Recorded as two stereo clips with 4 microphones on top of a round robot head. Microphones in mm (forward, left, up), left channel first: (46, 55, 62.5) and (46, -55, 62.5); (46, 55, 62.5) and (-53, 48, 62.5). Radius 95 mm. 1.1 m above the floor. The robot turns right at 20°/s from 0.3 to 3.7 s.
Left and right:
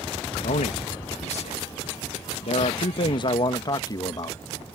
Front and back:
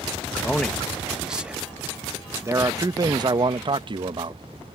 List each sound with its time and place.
0.4 s a man speaking: 85° left; by 4.4 s 150° left